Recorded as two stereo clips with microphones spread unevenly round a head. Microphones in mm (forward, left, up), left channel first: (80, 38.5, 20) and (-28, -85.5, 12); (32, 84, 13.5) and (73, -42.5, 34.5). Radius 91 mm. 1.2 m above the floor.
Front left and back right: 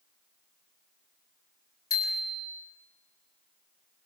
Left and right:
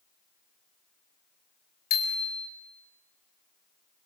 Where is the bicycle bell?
120° left, 4 m.